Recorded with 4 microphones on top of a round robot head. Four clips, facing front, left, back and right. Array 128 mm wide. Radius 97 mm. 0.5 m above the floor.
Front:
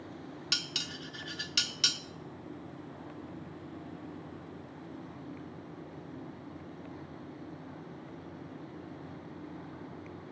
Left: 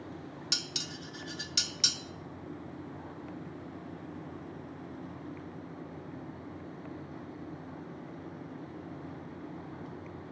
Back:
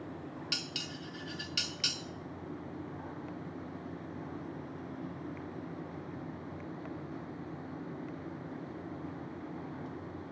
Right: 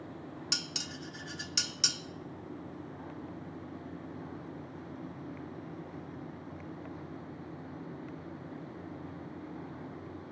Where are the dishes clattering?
30° right, 0.5 m.